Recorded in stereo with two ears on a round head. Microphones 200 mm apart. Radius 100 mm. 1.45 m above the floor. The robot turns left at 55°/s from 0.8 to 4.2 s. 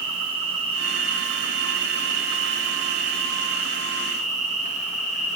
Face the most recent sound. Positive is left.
turn(degrees=150)